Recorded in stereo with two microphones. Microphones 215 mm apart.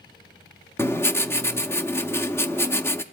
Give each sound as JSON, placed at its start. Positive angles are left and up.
{"t": 0.8, "sound": "writing", "side_deg": 10, "distance_m": 0.6}